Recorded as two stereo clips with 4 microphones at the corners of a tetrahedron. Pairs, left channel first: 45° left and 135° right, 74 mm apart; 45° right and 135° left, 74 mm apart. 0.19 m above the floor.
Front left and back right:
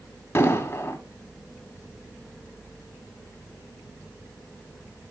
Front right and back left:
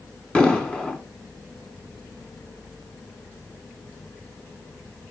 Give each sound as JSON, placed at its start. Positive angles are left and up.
{"t": 0.3, "sound": "an explosion", "azimuth_deg": 20, "distance_m": 1.3}